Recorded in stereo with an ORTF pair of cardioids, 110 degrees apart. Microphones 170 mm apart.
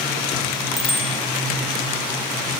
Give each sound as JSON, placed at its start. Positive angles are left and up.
{"t": 0.8, "sound": "a bicycle bell", "azimuth_deg": 0, "distance_m": 4.5}